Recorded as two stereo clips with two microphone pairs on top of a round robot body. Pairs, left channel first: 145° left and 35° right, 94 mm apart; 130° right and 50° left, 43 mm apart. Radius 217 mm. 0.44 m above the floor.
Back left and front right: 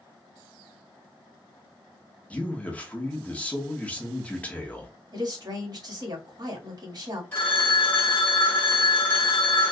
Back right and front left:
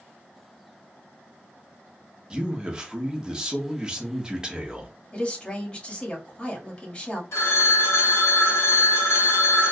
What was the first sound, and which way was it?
A man speaking, 90° left.